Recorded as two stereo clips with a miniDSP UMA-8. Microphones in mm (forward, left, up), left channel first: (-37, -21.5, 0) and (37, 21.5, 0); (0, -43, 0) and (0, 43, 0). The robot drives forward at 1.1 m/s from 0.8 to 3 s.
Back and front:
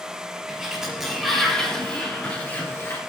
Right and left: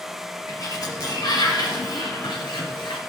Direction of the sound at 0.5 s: 55° right.